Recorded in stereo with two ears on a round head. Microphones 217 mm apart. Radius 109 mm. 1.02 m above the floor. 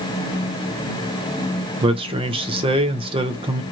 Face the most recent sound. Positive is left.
turn(degrees=-20)  # may be behind; listen again after turning